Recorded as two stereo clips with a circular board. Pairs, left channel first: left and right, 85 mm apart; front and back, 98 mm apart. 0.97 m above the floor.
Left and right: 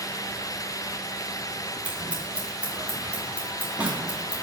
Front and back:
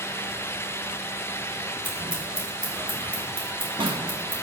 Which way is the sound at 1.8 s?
165° right.